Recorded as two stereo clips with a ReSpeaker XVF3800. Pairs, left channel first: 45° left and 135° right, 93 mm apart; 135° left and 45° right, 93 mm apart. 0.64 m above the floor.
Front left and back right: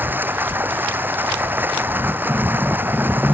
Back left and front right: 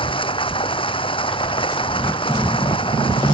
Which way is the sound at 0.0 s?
155° left.